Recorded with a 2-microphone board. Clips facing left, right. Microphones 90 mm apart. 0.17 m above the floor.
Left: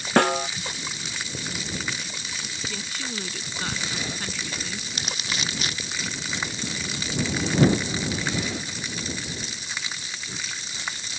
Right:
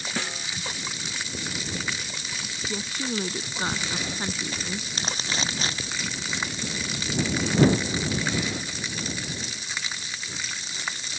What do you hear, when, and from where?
0.2 s a snare drum: 65° left (ahead or behind)
2.7 s a woman speaking: 25° right (ahead or behind)
4.9 s crumpling: 35° right (ahead or behind)